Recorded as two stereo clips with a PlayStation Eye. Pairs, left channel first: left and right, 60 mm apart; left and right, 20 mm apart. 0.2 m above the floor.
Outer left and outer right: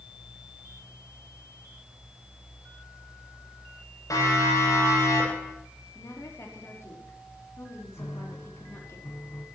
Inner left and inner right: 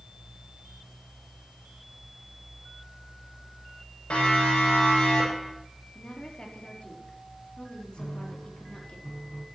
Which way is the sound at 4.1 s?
70° left (ahead or behind).